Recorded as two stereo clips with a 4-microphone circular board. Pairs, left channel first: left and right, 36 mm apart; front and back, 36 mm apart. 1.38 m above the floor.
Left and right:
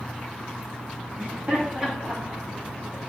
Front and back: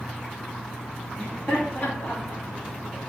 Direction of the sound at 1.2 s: 50° right.